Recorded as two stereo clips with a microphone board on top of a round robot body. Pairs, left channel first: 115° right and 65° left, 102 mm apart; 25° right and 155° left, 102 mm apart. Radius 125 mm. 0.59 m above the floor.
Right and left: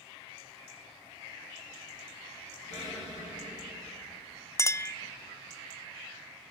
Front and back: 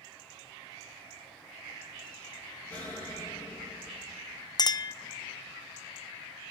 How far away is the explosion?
About 5 m.